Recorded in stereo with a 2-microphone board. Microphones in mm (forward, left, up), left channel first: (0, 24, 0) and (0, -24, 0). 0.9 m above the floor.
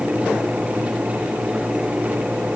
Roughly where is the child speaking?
No child speaking in this recording.